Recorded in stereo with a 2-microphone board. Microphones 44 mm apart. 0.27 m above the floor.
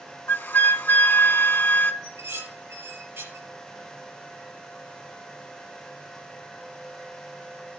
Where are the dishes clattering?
75° right (ahead or behind), 4 m.